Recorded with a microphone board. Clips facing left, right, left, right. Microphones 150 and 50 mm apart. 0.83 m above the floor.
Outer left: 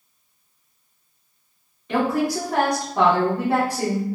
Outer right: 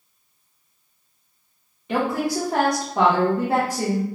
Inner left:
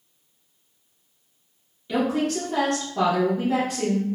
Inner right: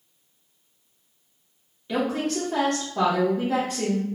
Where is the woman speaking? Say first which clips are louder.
Outer left 1 dB, inner left 2 dB; 15° right (ahead or behind), 0.7 m.